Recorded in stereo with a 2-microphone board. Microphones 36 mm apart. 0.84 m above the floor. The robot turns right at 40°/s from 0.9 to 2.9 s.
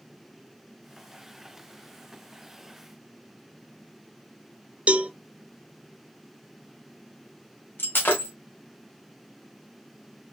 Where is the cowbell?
35° right (ahead or behind), 0.6 m.